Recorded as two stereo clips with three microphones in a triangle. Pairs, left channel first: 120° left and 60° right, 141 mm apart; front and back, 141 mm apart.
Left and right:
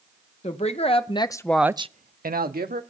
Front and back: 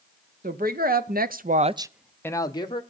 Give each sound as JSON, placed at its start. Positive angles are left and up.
{"t": 0.4, "sound": "a woman speaking", "azimuth_deg": 165, "distance_m": 1.6}